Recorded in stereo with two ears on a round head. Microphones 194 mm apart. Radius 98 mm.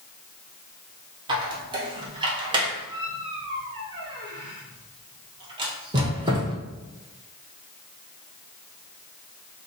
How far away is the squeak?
About 0.6 m.